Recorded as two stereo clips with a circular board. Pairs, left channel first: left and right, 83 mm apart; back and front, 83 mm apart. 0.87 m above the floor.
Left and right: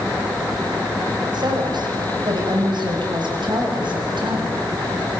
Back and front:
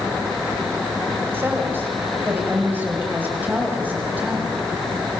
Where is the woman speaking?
65° right, 5 m; by 4.5 s 70° right, 7.5 m.